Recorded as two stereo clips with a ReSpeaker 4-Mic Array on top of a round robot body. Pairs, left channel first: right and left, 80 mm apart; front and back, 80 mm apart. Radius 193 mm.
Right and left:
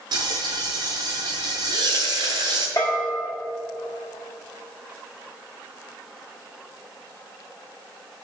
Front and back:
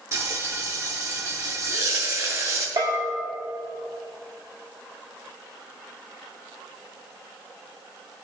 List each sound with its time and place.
0.1 s frying: 120° left, 0.8 m
2.8 s a bell: 140° right, 1.3 m